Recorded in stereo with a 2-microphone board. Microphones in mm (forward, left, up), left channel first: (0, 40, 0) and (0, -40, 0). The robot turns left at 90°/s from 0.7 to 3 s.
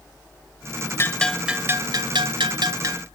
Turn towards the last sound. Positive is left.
turn(degrees=-145)